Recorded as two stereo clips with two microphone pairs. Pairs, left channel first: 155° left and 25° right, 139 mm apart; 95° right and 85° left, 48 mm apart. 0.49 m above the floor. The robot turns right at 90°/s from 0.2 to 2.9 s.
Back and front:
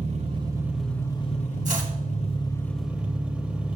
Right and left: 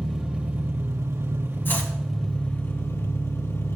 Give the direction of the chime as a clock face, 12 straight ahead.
I don't hear a chime.